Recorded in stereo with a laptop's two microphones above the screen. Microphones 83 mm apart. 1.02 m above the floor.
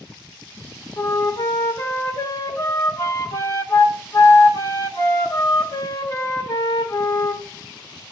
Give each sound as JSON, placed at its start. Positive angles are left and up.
{"t": 1.0, "sound": "a flute", "side_deg": 50, "distance_m": 1.4}